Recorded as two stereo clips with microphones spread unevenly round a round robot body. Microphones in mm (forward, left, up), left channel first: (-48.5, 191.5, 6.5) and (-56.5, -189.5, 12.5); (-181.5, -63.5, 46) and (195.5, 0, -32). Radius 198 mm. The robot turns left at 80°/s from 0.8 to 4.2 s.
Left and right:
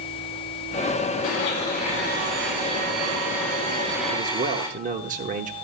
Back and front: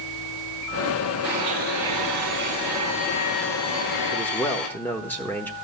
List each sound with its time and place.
1.2 s a blender: 45° left, 4.5 m; by 4.7 s 165° left, 4.5 m
4.1 s a man speaking: 55° right, 0.9 m; by 5.5 s 65° right, 0.9 m